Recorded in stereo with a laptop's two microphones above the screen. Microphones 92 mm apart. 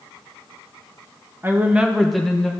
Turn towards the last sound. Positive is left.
turn(degrees=10)  # may be behind; listen again after turning